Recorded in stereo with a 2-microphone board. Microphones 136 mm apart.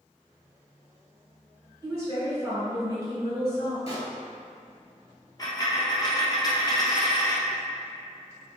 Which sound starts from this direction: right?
A woman speaking, at 1.8 s.